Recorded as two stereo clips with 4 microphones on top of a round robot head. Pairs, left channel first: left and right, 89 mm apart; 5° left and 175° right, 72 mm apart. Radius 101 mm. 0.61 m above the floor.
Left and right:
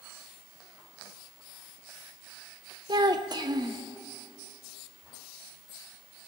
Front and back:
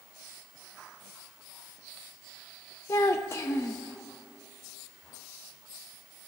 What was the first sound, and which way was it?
A child speaking, 50° right.